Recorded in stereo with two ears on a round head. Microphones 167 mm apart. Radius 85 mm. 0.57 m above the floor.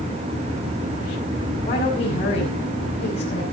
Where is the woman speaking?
35° left (ahead or behind), 7 m.